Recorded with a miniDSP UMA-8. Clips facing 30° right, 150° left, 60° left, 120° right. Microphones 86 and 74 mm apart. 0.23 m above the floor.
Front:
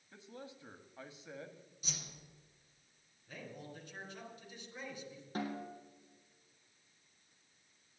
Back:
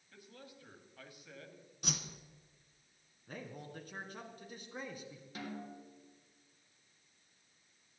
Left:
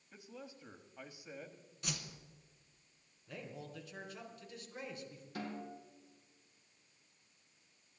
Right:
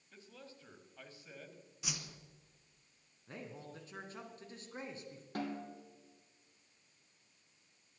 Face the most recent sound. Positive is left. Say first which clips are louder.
# front 5 dB, right 3 dB
turn(degrees=-80)